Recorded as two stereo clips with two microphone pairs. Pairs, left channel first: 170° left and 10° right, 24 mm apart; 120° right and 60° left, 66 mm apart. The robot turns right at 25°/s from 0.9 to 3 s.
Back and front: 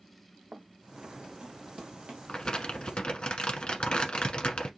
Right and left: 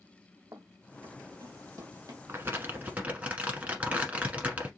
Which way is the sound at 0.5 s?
30° left.